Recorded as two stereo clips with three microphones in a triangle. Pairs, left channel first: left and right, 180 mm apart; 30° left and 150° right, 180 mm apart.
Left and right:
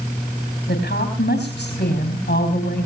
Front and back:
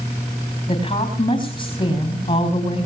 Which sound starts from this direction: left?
A woman speaking, at 0.7 s.